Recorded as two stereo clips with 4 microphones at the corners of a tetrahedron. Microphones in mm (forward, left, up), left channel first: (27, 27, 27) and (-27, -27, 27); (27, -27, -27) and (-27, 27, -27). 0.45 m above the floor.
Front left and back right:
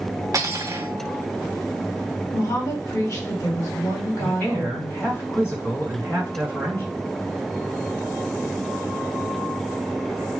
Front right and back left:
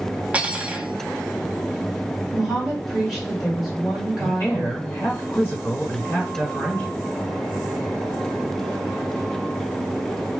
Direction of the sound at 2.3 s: 45° left.